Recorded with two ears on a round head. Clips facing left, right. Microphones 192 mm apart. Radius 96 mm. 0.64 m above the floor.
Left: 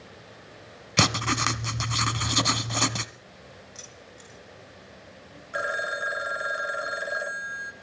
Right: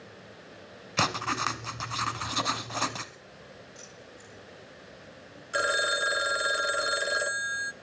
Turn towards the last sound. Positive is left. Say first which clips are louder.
# right 2 dB
turn(degrees=-50)  # may be behind; listen again after turning